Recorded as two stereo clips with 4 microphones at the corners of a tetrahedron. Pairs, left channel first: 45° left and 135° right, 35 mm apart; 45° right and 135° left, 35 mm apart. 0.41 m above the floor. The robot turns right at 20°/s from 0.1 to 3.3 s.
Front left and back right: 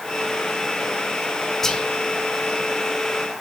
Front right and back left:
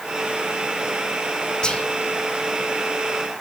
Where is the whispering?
15° right, 0.9 m; by 1.9 s 10° right, 0.9 m.